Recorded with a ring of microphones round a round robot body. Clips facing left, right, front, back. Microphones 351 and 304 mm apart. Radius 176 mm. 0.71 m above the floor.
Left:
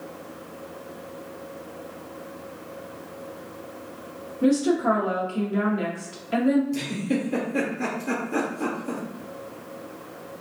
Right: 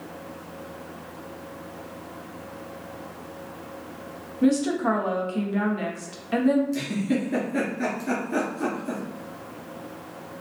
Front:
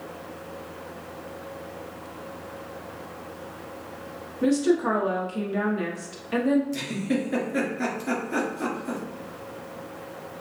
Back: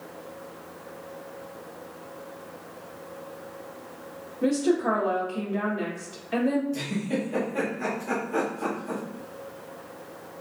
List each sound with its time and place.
4.4 s a woman speaking: 45° right, 0.9 m
6.7 s a giggle: 15° right, 2.0 m